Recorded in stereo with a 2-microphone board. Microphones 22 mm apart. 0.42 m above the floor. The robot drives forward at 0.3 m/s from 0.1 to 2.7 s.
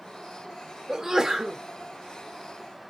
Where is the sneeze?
20° right (ahead or behind), 0.8 m.